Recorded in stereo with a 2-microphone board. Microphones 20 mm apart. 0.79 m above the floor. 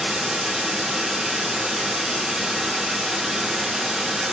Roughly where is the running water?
Right.